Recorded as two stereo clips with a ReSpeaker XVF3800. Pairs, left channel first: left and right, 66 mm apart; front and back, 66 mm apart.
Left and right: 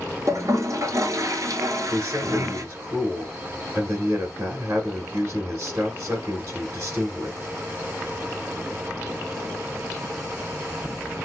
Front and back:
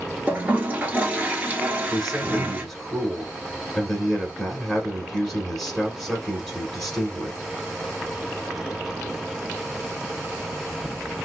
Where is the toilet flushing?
115° right, 0.9 m.